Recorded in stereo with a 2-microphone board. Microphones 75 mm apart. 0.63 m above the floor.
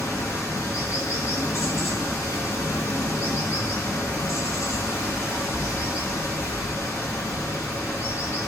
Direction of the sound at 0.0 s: 40° left (ahead or behind).